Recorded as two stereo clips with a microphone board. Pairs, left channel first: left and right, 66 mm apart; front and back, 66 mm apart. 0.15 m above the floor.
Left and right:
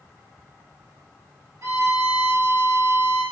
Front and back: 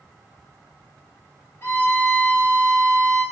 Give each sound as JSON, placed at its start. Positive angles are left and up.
{"t": 1.6, "sound": "a violin", "azimuth_deg": -60, "distance_m": 1.2}